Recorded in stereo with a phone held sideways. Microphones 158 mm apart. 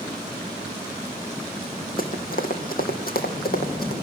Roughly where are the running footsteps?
Left.